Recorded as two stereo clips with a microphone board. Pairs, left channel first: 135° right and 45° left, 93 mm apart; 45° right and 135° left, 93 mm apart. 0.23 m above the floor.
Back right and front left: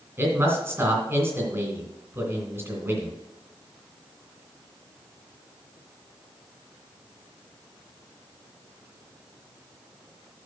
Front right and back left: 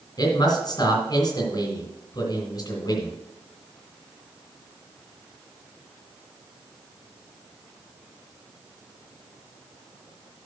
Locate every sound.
0.2 s a man speaking: 15° right, 2 m